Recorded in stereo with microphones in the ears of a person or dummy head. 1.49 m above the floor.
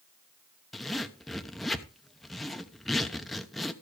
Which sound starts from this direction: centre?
A zipper, at 0.7 s.